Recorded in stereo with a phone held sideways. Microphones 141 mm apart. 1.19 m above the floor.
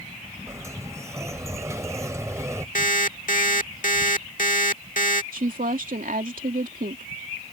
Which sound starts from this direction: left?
An alarm clock, at 2.8 s.